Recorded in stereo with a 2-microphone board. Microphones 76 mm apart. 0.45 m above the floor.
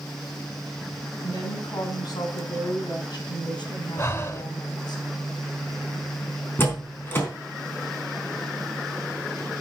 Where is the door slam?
30° left (ahead or behind), 4 m.